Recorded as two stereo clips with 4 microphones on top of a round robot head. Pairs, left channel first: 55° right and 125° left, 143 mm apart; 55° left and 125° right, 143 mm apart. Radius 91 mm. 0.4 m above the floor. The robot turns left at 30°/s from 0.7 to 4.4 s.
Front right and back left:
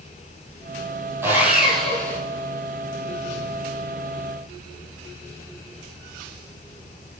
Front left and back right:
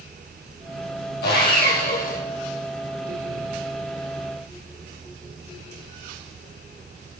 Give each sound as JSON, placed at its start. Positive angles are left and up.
{"t": 1.2, "sound": "sawing", "azimuth_deg": 50, "distance_m": 6.5}